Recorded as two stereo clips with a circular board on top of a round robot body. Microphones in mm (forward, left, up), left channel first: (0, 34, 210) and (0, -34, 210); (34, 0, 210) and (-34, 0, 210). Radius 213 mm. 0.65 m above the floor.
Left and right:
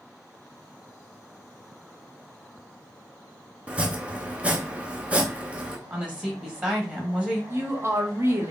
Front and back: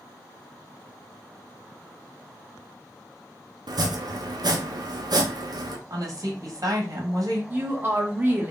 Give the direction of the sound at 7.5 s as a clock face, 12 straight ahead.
4 o'clock.